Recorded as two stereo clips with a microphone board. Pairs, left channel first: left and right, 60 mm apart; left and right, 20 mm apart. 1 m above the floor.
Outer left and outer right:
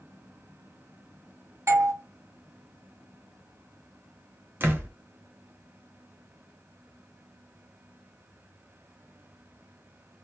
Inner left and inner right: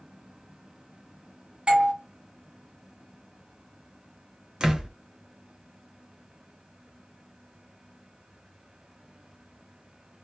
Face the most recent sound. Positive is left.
turn(degrees=-35)  # may be behind; listen again after turning